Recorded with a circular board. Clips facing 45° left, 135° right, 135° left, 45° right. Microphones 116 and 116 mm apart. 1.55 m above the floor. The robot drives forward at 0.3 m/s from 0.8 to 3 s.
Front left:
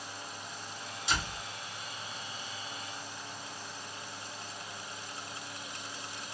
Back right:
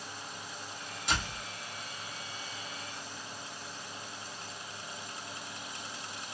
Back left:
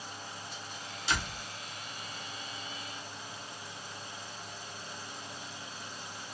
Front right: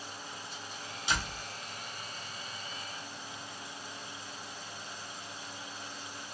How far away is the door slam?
About 1.2 m.